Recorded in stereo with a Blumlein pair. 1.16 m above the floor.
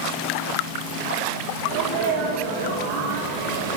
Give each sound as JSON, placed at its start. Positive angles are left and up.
{"t": 1.7, "sound": "a sneeze", "azimuth_deg": -40, "distance_m": 5.5}